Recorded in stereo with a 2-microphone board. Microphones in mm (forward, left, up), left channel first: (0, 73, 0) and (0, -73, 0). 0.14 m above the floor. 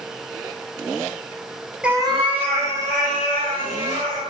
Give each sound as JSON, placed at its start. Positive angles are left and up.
{"t": 1.8, "sound": "a cat meowing", "side_deg": -5, "distance_m": 0.6}